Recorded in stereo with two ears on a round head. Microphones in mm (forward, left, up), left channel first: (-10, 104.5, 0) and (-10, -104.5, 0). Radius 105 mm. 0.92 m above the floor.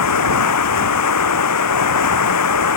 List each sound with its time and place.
0.0 s running water: 85° left